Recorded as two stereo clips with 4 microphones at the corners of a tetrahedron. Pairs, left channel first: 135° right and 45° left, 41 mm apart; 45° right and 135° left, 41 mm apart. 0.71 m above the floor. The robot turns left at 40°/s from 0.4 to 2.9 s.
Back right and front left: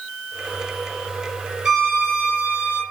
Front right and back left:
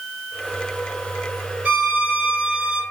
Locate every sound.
1.6 s a violin: 110° left, 1.1 m; by 2.8 s 60° left, 1.1 m